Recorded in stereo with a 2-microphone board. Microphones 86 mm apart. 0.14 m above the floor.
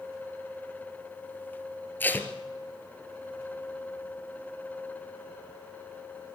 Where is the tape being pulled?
20° left (ahead or behind), 2.5 m.